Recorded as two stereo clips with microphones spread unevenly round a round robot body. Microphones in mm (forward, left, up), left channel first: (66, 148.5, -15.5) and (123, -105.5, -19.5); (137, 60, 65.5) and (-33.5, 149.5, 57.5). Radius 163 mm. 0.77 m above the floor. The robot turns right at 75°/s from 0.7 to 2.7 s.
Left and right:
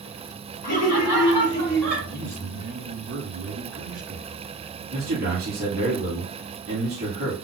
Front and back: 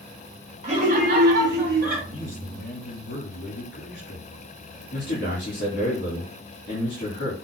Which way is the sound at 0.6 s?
105° left.